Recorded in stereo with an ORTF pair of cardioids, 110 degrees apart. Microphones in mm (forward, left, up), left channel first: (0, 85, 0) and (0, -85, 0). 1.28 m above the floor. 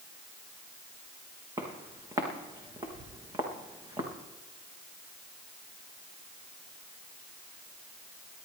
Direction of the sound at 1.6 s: 25° right.